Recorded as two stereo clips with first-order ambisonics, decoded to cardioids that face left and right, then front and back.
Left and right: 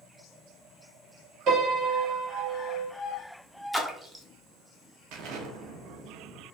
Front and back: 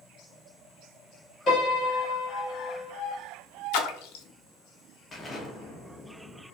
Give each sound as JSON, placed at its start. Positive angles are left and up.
{"t": 1.5, "sound": "a piano", "azimuth_deg": -60, "distance_m": 1.8}
{"t": 3.7, "sound": "a splash", "azimuth_deg": -5, "distance_m": 0.6}
{"t": 5.1, "sound": "an explosion", "azimuth_deg": -75, "distance_m": 0.8}